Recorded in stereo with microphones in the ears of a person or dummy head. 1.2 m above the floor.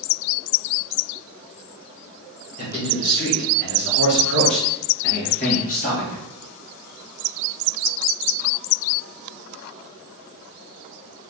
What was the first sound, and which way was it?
A man speaking, 40° left (ahead or behind).